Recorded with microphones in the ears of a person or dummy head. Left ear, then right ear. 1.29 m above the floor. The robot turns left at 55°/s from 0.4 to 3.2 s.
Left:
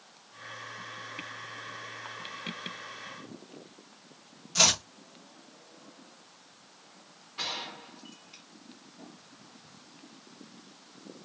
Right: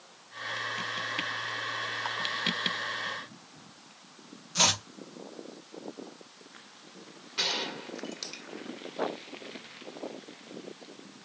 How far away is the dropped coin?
I don't hear a dropped coin.